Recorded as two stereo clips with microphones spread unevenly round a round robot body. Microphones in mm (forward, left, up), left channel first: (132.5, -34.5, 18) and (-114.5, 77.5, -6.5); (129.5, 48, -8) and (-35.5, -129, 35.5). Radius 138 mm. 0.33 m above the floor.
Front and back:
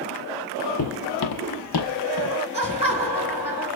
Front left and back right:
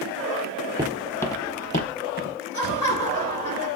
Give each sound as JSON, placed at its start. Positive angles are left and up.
{"t": 0.8, "sound": "footsteps", "azimuth_deg": -65, "distance_m": 0.6}
{"t": 2.5, "sound": "laughter", "azimuth_deg": 90, "distance_m": 3.0}